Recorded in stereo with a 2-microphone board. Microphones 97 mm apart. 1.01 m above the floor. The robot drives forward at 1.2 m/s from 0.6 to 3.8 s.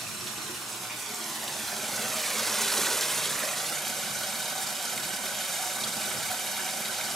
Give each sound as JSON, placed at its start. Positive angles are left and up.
{"t": 0.0, "sound": "running water", "side_deg": 0, "distance_m": 2.5}